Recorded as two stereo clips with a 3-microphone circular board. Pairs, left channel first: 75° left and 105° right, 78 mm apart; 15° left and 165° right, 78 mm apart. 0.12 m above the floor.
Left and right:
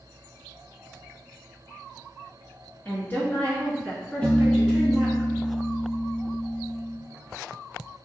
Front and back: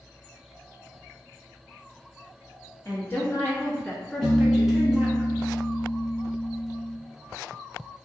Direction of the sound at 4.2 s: 5° left.